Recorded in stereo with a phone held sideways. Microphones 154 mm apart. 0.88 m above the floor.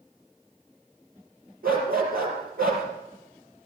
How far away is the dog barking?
About 5 m.